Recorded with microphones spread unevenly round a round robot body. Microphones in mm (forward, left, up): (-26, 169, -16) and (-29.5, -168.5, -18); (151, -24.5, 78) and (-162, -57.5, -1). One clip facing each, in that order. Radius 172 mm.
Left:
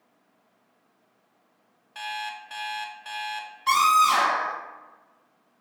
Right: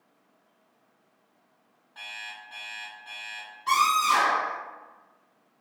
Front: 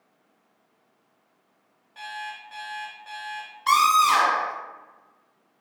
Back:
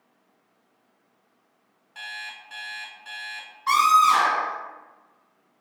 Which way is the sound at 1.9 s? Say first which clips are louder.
Left 11 dB, front 7 dB; 125° left.